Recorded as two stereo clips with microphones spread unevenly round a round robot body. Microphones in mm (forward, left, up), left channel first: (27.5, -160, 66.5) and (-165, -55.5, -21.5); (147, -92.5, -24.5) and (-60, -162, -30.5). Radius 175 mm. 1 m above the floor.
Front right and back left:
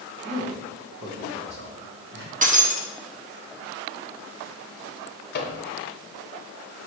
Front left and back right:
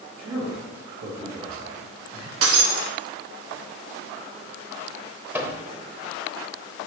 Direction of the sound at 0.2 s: 165° left.